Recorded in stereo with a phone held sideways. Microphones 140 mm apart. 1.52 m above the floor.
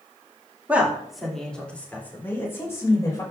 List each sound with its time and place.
0.7 s a woman speaking: 10° right (ahead or behind), 2.5 m; by 3.2 s 25° left (ahead or behind), 5 m